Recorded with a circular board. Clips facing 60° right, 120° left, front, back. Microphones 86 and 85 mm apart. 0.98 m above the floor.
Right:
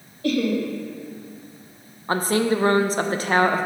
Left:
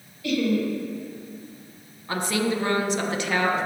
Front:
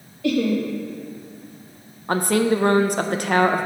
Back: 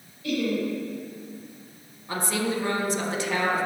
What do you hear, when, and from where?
0.2 s laughter: 15° right, 1.5 m
2.1 s a woman speaking: 15° right, 0.6 m